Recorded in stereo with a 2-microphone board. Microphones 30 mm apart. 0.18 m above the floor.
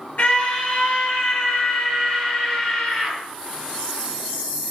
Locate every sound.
0.2 s a scream: 55° left (ahead or behind), 3.5 m; by 3.2 s 40° left (ahead or behind), 4.5 m